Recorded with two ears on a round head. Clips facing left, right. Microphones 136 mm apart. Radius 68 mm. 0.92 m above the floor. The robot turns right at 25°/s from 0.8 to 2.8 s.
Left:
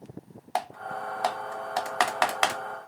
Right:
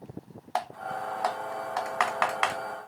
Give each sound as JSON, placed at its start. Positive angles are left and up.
{"t": 0.6, "sound": "typing on a keyboard", "side_deg": 20, "distance_m": 0.8}